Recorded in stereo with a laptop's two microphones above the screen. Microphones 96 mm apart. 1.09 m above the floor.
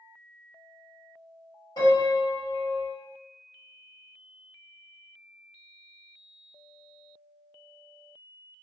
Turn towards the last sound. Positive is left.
turn(degrees=40)  # may be behind; listen again after turning